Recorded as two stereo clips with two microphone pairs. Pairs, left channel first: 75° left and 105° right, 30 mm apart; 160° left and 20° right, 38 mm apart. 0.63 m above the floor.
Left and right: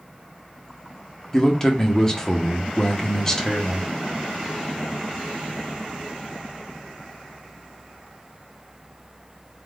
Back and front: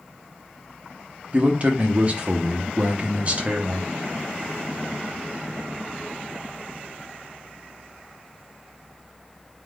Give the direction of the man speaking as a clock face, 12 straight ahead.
12 o'clock.